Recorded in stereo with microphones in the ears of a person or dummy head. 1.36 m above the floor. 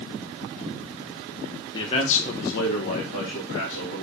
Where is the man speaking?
25° left (ahead or behind), 1.0 m; by 4.0 s 65° left (ahead or behind), 1.6 m.